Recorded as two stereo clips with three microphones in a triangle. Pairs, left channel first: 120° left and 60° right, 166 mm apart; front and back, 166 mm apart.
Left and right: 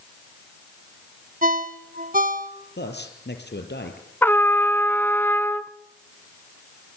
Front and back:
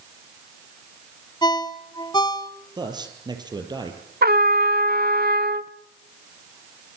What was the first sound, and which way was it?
A ringtone, 60° right.